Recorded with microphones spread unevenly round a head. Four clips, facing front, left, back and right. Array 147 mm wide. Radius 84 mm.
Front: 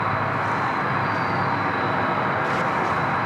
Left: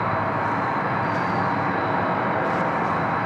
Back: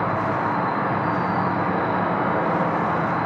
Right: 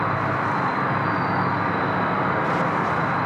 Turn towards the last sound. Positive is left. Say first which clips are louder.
# even, back 1 dB
turn(degrees=155)